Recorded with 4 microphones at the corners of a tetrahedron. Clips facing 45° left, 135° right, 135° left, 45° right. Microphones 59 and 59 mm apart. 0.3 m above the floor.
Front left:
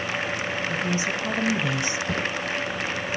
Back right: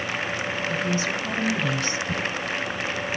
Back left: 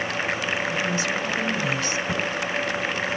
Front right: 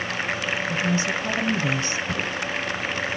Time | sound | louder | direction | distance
0.7 | a woman speaking | back right 1 dB, front right 1 dB | 10° right | 1.6 m
2.1 | footsteps | front left 1 dB, back left 1 dB | 60° left | 4 m